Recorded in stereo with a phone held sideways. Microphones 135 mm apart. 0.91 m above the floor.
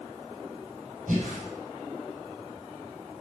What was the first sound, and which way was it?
Breathing, 80° right.